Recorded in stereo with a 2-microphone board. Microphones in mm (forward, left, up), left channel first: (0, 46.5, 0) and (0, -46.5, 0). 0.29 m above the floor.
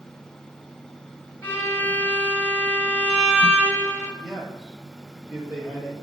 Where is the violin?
20° left (ahead or behind), 1.0 m.